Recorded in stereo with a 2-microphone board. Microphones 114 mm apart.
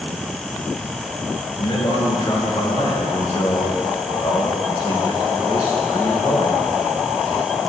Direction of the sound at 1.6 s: 45° left (ahead or behind).